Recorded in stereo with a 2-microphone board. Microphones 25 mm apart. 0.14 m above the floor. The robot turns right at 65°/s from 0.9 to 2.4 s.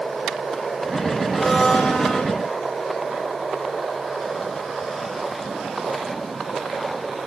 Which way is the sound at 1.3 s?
20° left.